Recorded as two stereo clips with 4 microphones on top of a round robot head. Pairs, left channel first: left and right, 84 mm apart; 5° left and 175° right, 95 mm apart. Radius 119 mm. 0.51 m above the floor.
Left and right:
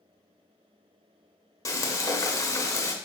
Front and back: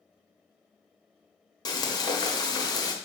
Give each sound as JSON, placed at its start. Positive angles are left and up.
{"t": 1.6, "sound": "frying", "azimuth_deg": 45, "distance_m": 1.4}